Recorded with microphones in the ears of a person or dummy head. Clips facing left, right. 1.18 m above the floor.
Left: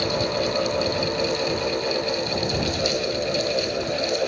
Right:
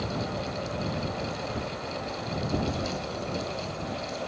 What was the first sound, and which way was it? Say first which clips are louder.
A fan: left 9 dB; 75° left (ahead or behind).